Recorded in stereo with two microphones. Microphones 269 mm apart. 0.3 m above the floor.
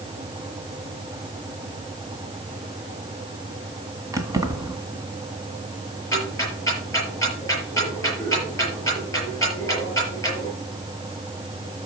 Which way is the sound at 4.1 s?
10° right (ahead or behind).